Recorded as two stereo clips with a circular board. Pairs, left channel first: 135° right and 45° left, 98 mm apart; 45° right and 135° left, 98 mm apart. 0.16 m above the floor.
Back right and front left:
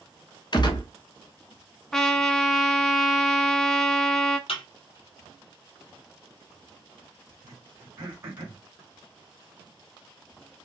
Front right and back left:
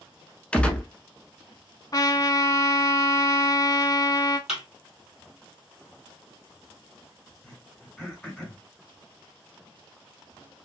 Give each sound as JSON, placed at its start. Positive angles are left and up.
{"t": 0.5, "sound": "a gunshot", "azimuth_deg": -120, "distance_m": 0.6}
{"t": 1.9, "sound": "a trumpet", "azimuth_deg": -55, "distance_m": 0.5}
{"t": 4.5, "sound": "a thud", "azimuth_deg": -140, "distance_m": 2.0}
{"t": 7.4, "sound": "throat clearing", "azimuth_deg": 20, "distance_m": 1.8}